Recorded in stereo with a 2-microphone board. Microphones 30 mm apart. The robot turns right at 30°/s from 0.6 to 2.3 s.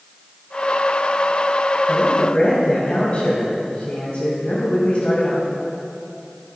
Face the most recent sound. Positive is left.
turn(degrees=45)  # may be behind; listen again after turning